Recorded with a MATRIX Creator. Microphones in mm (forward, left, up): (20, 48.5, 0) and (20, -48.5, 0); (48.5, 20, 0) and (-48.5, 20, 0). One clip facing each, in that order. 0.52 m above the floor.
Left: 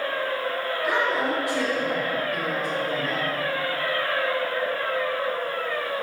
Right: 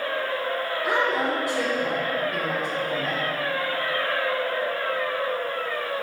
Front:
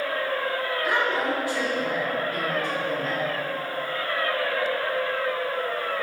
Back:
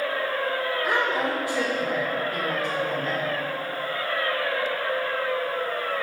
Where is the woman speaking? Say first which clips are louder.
Even, front 1 dB; 135° right, 1.3 m.